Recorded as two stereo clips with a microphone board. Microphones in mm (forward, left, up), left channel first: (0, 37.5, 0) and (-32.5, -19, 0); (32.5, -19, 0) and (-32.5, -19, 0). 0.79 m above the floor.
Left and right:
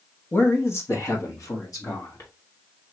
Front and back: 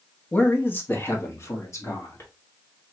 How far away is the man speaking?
About 1.0 m.